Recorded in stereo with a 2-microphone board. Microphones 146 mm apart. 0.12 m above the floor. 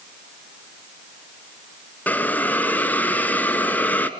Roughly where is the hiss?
Centre.